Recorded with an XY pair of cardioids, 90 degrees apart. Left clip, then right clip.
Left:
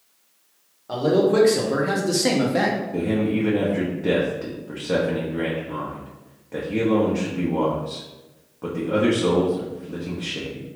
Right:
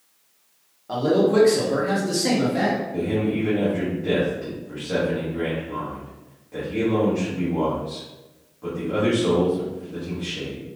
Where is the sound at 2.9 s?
60° left, 0.8 m.